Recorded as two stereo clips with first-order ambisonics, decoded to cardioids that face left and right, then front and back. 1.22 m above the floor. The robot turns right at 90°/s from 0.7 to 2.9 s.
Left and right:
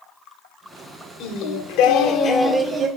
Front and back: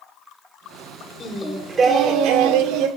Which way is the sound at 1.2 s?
60° left.